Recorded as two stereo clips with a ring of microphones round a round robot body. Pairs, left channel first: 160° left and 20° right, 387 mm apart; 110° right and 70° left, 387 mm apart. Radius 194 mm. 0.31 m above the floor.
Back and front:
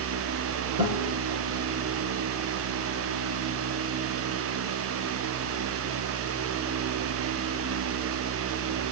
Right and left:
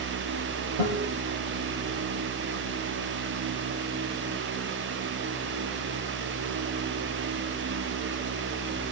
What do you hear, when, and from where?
0.8 s a guitar: 35° left, 8 m